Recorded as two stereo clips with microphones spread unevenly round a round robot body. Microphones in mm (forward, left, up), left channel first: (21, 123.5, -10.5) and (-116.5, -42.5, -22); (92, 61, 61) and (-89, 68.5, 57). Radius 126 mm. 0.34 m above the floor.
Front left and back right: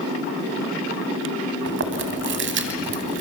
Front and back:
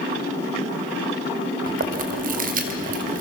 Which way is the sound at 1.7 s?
145° right.